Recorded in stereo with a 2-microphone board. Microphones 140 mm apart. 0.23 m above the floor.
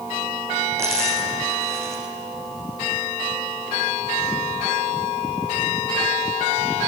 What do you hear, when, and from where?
0.8 s a dropped coin: 20° right (ahead or behind), 7.5 m